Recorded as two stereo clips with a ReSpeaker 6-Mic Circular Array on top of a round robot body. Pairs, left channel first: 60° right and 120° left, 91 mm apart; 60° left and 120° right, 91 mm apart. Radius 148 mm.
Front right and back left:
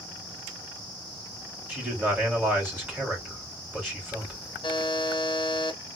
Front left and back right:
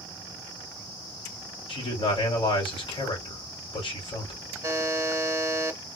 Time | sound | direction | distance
1.7 | a man speaking | 50° left | 2.5 m
4.6 | a buzzer | 65° right | 1.1 m